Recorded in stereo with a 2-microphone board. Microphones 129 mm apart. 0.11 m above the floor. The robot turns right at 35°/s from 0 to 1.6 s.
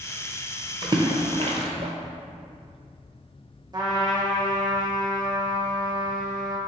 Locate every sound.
0.8 s a splash: 30° right (ahead or behind), 0.6 m; by 1.9 s 55° right (ahead or behind), 0.6 m
3.7 s a trumpet: 35° right (ahead or behind), 1.0 m